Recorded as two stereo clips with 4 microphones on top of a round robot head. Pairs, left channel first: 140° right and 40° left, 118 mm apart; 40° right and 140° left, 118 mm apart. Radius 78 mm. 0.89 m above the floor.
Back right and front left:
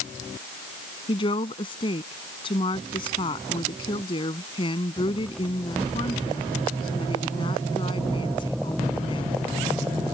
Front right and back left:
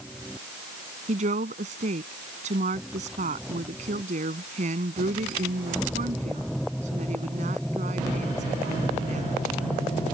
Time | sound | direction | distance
1.1 | a woman speaking | 170° left | ?